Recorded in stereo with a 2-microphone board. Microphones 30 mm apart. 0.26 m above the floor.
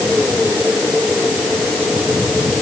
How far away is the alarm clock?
No alarm clock in this recording.